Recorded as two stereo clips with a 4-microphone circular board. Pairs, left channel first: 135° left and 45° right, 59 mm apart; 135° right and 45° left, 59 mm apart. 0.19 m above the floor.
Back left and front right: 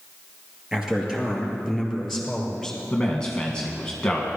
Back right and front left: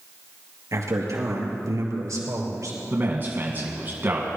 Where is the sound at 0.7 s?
35° left, 3.5 m; by 2.8 s 50° left, 4 m.